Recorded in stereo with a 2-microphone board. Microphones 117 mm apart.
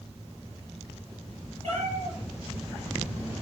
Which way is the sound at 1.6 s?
60° right (ahead or behind).